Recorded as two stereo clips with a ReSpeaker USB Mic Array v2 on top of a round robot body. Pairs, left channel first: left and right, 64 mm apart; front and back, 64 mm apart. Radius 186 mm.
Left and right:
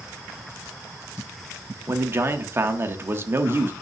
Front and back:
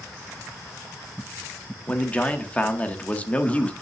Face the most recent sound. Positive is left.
turn(degrees=-60)